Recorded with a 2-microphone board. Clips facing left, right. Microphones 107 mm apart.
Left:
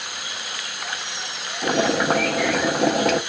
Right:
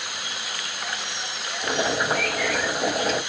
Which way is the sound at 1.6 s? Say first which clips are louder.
Left 5 dB; 65° left (ahead or behind).